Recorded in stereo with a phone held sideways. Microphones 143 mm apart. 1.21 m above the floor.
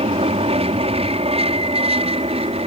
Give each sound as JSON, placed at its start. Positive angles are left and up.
{"t": 0.0, "sound": "an aircraft", "side_deg": -40}